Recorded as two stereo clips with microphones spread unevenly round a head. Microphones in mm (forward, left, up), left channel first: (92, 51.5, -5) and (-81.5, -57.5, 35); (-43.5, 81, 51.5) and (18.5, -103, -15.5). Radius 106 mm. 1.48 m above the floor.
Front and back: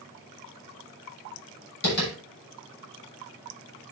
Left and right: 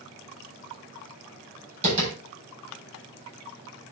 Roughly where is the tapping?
Ahead.